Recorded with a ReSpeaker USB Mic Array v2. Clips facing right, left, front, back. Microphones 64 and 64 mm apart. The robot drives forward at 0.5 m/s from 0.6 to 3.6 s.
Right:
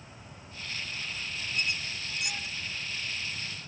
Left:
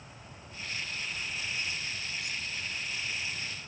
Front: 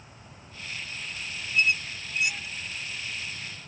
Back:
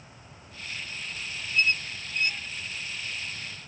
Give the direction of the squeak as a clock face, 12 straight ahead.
3 o'clock.